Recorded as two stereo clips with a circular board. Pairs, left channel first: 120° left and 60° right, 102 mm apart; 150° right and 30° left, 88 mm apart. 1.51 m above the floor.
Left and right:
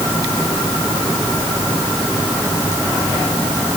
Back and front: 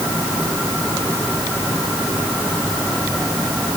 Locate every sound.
Only background noise.